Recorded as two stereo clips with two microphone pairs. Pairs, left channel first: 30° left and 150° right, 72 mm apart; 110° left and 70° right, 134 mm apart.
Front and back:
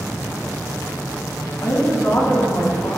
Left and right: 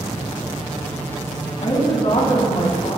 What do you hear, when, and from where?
1.6 s a woman speaking: 75° left, 4 m